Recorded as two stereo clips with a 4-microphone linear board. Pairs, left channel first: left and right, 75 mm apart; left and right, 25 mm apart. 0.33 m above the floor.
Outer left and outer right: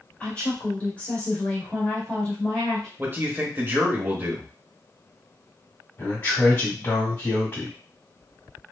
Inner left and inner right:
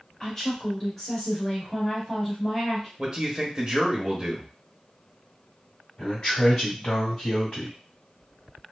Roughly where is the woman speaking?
Centre.